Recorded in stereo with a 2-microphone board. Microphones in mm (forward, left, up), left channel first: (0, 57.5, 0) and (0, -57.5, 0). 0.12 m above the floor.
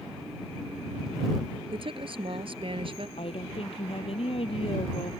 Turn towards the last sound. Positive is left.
turn(degrees=55)  # may be behind; listen again after turning